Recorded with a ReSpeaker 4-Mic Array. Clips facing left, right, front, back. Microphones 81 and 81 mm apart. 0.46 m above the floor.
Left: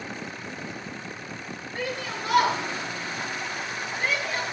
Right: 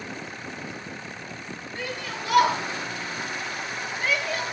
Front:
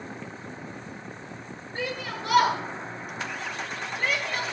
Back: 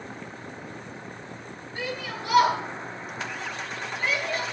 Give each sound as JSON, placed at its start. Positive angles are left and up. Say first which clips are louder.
{"t": 1.8, "sound": "a shout", "louder": "left 2 dB, front 1 dB", "azimuth_deg": 60, "distance_m": 8.0}